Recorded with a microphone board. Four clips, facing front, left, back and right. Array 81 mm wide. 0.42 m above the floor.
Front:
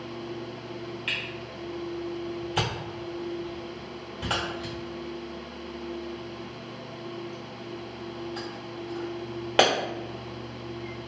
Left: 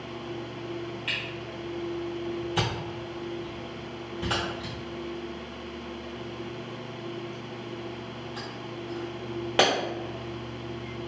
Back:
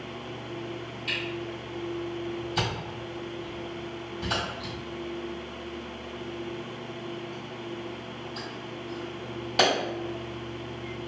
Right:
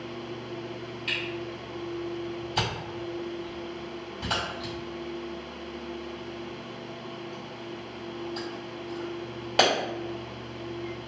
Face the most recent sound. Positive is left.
turn(degrees=10)